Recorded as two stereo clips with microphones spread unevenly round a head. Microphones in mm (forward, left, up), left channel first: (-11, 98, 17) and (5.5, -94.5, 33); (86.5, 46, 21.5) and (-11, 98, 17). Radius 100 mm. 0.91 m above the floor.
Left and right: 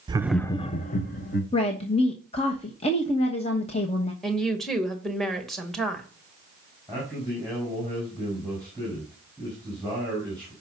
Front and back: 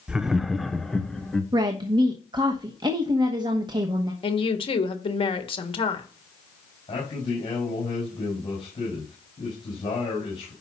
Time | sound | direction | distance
0.1 | laughter | 135° right | 0.7 m
1.5 | a woman speaking | 130° left | 1.1 m
4.2 | a woman speaking | 10° left | 1.6 m
6.9 | a man speaking | 15° left | 6 m